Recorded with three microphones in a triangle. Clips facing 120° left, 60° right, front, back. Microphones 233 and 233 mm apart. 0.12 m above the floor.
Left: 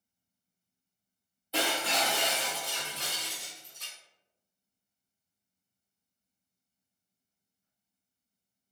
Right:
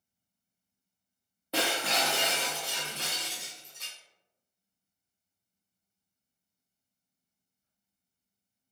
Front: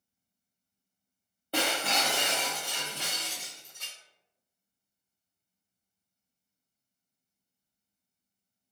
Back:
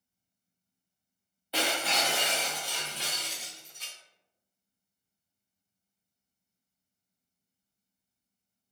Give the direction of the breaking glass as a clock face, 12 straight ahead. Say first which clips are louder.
Right 1 dB, front 1 dB; 1 o'clock.